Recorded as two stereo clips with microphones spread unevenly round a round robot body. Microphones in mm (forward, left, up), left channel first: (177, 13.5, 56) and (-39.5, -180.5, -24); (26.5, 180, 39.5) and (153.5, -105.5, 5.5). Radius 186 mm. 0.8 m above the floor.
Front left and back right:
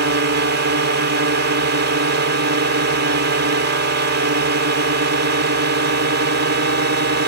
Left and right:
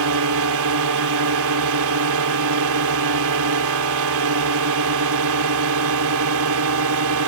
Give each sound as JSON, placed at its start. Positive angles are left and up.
{"t": 0.0, "sound": "a drone", "azimuth_deg": -105}